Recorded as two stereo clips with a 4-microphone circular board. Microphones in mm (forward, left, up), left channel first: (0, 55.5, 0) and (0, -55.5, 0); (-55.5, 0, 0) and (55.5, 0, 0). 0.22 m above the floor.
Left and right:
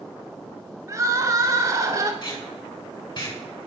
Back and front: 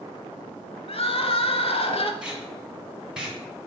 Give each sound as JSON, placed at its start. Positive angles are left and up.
{"t": 0.9, "sound": "crying", "azimuth_deg": -150, "distance_m": 0.8}
{"t": 2.2, "sound": "tape being pulled", "azimuth_deg": 80, "distance_m": 2.0}